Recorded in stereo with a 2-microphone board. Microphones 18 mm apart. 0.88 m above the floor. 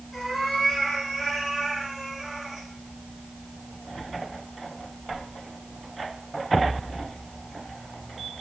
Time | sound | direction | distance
0.1 | a cat meowing | 5° left (ahead or behind) | 3.5 m